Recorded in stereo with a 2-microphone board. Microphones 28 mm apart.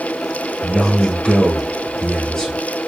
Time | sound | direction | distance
0.6 | a man speaking | 25° left (ahead or behind) | 0.8 m